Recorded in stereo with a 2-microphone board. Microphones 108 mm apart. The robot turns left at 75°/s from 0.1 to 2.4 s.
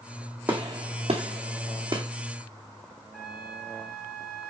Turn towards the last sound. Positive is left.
turn(degrees=-5)  # may be behind; listen again after turning